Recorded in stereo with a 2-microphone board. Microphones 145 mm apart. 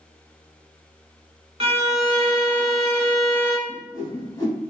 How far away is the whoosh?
About 1.1 m.